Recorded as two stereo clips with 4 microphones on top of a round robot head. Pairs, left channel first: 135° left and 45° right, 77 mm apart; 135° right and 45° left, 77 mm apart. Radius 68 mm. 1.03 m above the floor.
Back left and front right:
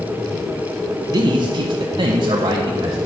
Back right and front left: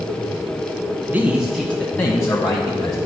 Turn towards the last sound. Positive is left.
turn(degrees=-90)